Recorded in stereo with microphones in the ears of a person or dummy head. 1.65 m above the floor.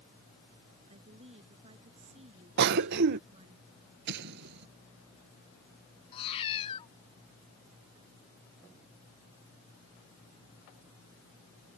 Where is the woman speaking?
30° right (ahead or behind).